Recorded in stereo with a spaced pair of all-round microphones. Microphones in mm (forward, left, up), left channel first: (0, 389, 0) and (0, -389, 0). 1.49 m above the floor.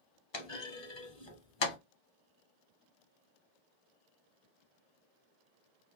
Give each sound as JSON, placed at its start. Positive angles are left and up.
{"t": 0.3, "sound": "a clunk", "side_deg": 40, "distance_m": 0.7}